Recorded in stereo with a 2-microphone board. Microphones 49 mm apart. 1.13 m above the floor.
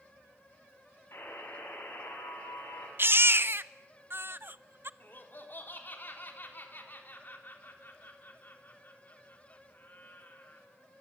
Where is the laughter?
45° left (ahead or behind), 4 m.